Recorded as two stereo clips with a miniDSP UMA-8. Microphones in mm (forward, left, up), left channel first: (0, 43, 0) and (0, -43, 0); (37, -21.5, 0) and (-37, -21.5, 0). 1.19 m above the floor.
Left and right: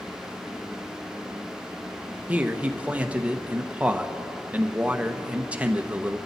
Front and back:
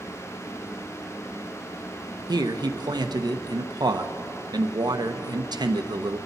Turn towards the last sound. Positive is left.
turn(degrees=-165)